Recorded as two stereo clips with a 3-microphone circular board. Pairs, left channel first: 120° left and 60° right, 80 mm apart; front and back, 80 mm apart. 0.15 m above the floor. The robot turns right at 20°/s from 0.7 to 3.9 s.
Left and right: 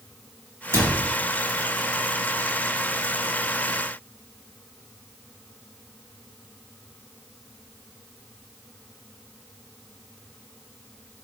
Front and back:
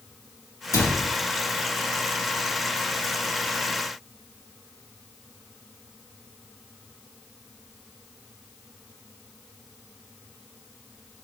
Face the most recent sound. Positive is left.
turn(degrees=35)